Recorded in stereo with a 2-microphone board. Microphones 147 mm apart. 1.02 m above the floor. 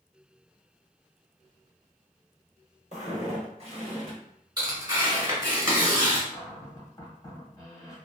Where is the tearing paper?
30° right (ahead or behind), 1.5 m.